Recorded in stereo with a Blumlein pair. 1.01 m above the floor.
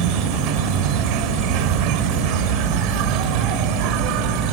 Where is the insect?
40° right.